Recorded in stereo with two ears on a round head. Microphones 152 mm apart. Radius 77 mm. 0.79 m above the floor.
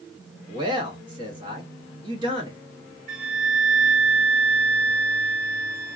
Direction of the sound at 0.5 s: 25° right (ahead or behind).